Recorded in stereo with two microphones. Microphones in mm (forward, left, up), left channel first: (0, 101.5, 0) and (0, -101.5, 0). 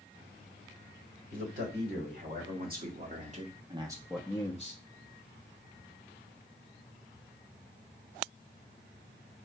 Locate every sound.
1.3 s a man speaking: 50° right (ahead or behind), 3.5 m; by 4.8 s 40° left (ahead or behind), 1.0 m